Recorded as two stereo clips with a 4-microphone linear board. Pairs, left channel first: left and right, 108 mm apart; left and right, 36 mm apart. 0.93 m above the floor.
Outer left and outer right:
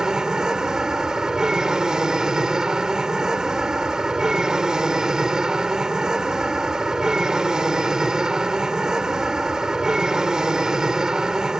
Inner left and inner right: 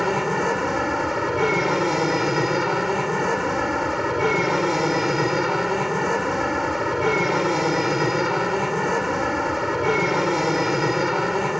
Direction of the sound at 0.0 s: 5° right (ahead or behind).